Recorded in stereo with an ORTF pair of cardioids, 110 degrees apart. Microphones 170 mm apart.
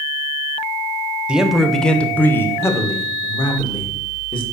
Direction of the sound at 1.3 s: 5° right.